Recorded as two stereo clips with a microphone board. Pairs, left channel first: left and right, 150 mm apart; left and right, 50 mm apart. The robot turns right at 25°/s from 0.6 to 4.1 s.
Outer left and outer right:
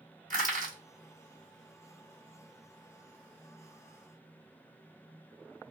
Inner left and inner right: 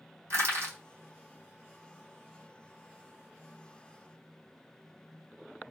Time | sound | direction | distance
0.3 | crushing | 55° right (ahead or behind) | 2 m